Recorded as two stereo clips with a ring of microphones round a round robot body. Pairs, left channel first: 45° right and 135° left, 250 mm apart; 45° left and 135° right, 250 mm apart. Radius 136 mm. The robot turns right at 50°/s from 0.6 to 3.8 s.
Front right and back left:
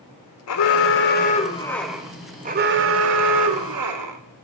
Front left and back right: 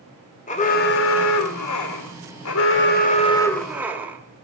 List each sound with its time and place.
0.5 s an alarm: 20° right, 1.4 m; by 4.2 s 140° left, 1.4 m